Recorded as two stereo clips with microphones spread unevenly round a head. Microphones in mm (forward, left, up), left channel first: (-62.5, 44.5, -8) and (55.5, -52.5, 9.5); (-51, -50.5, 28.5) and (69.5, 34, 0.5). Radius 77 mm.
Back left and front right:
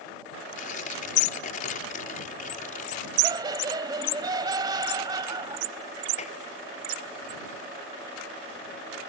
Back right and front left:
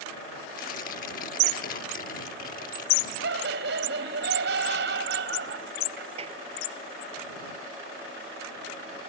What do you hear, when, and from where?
0.6 s tearing paper: 175° left
3.2 s laughter: 25° left
6.2 s a clap: 90° left